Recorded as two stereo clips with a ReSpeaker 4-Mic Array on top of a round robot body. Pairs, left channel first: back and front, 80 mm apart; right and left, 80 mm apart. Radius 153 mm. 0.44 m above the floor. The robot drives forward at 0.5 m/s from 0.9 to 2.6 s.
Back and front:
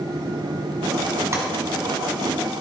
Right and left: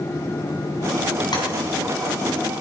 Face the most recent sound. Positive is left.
turn(degrees=-65)